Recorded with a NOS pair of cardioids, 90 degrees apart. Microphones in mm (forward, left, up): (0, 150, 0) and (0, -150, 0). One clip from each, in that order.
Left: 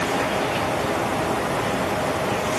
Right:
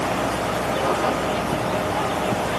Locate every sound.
Only background noise.